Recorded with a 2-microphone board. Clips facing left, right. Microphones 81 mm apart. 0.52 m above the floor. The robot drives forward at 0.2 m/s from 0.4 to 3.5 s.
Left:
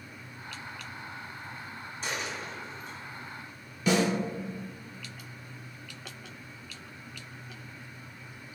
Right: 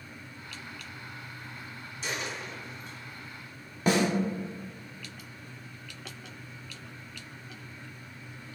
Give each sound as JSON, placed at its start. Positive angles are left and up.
{"t": 2.0, "sound": "a dropped coin", "side_deg": 40, "distance_m": 1.2}
{"t": 3.9, "sound": "a snare drum", "side_deg": -40, "distance_m": 0.8}